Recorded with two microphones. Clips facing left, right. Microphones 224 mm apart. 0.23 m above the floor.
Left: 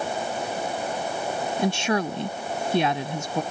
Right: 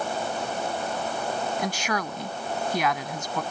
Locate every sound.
1.6 s a woman speaking: 30° left (ahead or behind)